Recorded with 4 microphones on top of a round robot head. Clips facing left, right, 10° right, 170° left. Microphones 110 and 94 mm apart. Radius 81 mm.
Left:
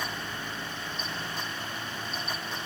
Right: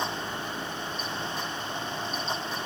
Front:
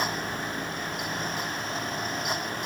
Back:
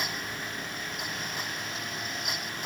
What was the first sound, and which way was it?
Only background noise.